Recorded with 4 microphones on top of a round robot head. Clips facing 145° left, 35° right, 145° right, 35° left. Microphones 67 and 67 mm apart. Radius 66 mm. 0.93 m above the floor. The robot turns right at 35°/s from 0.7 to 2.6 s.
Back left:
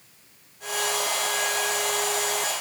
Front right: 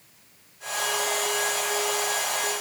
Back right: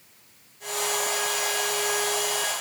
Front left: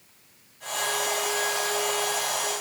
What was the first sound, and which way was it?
Only background noise.